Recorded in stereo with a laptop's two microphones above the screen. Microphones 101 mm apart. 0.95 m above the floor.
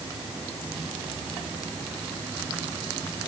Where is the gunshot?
I don't hear a gunshot.